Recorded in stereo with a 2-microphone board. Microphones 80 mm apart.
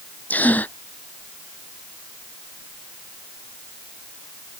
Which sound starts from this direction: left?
A gasp, at 0.3 s.